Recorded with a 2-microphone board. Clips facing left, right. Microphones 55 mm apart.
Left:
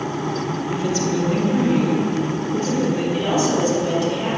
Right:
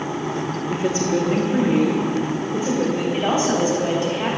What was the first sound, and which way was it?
A woman speaking, 35° right (ahead or behind).